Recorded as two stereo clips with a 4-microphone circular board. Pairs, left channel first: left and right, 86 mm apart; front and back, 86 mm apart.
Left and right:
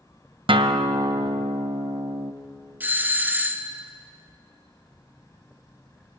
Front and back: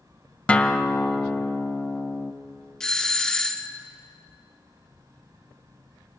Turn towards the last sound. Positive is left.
turn(degrees=-70)